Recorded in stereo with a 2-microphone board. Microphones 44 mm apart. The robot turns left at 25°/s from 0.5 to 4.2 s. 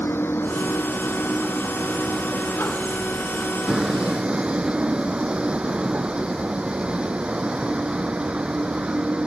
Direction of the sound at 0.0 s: 65° left.